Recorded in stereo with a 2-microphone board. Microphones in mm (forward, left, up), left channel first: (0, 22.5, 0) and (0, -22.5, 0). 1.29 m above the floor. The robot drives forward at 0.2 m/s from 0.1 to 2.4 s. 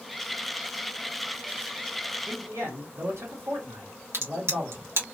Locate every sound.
2.3 s a man speaking: 75° right (ahead or behind), 1.4 m
4.1 s a crack: 70° right (ahead or behind), 1.0 m